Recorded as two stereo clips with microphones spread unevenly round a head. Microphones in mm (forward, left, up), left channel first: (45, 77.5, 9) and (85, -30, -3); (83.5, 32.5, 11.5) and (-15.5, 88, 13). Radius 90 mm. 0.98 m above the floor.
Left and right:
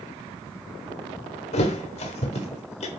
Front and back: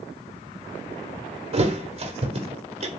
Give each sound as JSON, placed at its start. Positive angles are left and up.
{"t": 1.5, "sound": "a thud", "azimuth_deg": 125, "distance_m": 1.1}